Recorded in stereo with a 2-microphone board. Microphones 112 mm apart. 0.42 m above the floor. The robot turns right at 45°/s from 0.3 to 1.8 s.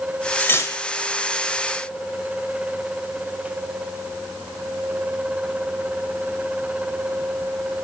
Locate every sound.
0.4 s cutlery clinking: 15° left (ahead or behind), 0.9 m; by 0.8 s 30° left (ahead or behind), 0.9 m